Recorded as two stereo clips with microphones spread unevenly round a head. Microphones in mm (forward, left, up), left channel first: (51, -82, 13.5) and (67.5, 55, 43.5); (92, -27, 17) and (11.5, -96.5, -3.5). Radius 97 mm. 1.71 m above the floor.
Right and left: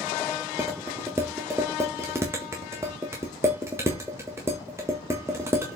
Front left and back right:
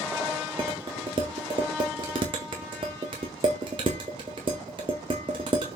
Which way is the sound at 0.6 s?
155° left.